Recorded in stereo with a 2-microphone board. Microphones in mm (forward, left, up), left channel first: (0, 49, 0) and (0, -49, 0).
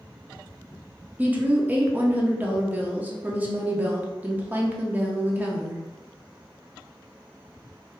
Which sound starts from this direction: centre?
A woman speaking, at 1.2 s.